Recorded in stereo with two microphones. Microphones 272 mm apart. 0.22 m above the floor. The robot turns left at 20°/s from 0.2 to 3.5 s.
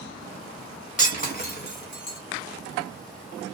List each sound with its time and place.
1.0 s breaking glass: 25° left (ahead or behind), 1.1 m; by 2.2 s 45° left (ahead or behind), 1.1 m